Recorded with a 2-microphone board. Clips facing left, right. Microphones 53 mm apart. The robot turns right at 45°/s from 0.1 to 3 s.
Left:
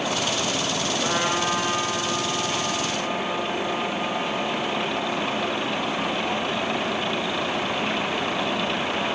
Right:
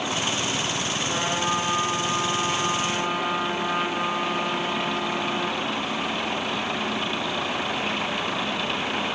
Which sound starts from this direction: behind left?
A trumpet, at 1.0 s.